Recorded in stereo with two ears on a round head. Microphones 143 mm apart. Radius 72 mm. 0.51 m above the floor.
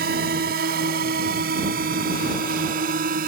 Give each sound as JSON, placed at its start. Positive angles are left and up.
{"t": 0.0, "sound": "a drone", "side_deg": -70}